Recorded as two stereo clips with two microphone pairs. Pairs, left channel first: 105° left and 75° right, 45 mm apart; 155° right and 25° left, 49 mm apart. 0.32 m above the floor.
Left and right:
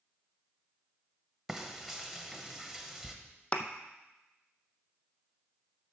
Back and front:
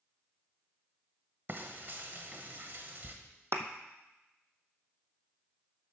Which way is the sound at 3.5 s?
40° left.